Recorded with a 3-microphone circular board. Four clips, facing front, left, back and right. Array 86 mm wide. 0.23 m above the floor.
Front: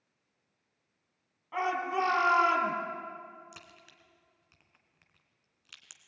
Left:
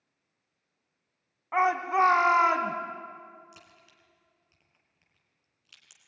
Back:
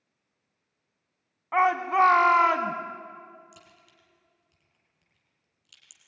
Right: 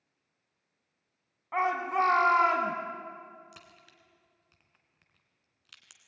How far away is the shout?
About 2 m.